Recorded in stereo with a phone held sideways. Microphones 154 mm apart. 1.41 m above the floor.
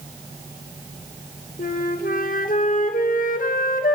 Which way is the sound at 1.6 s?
65° left (ahead or behind).